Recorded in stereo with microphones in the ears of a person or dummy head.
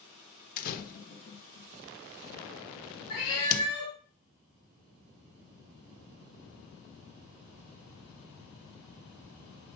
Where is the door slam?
50° left (ahead or behind), 1.1 m.